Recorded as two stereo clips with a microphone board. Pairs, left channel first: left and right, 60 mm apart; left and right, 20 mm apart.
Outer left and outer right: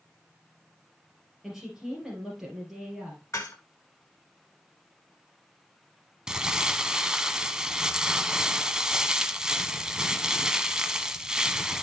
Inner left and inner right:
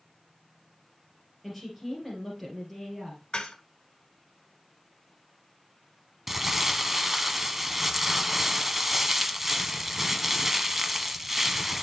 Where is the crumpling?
10° right (ahead or behind), 0.8 m.